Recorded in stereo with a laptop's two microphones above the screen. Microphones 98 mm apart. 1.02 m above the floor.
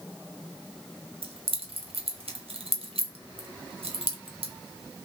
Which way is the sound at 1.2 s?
75° right (ahead or behind).